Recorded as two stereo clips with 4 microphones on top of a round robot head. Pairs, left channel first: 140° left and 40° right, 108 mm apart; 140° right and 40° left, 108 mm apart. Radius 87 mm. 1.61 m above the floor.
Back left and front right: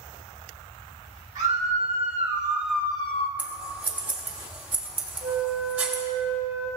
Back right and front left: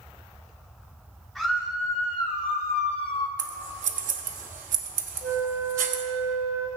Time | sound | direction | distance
1.4 | a scream | 50° right | 1.4 m
3.4 | scissors | 35° left | 0.8 m
5.2 | a flute | 5° left | 2 m